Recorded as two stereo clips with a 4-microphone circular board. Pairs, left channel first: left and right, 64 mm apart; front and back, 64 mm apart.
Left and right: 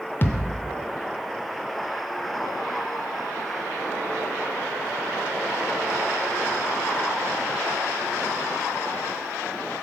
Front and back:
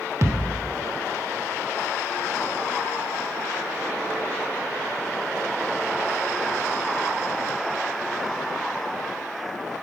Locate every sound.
0.2 s a thud: 145° left, 0.6 m